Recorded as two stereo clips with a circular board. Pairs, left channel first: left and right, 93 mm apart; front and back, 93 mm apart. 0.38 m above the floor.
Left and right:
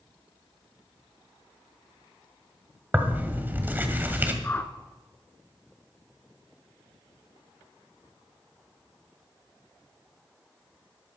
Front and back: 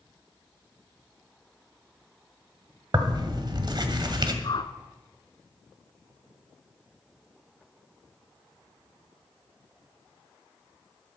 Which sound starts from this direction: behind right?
Tearing paper, at 2.9 s.